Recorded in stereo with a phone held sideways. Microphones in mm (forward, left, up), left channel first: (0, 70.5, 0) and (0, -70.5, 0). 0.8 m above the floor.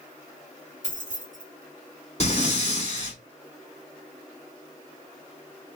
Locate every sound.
0.8 s keys jangling: 65° left (ahead or behind), 2 m
2.2 s breathing: 45° left (ahead or behind), 2.5 m